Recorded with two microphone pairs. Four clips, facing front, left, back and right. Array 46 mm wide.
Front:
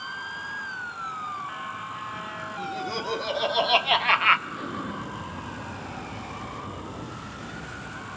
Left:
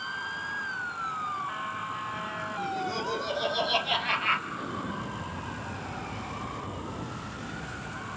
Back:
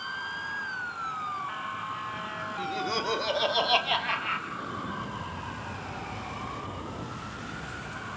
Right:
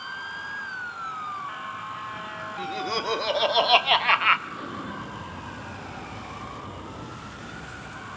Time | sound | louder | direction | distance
2.6 | laughter | right 4 dB, back 1 dB | 110° right | 2.5 m
4.5 | an explosion | even, front 2 dB | 45° right | 6 m